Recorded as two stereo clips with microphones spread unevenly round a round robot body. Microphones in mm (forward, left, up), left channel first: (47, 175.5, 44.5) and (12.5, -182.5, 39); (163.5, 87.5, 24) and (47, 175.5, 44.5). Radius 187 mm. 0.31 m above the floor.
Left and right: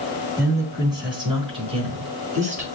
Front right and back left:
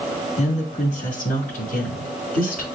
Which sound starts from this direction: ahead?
A woman speaking, at 0.4 s.